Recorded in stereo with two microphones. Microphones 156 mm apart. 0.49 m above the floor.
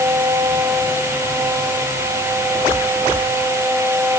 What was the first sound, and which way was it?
Only background noise.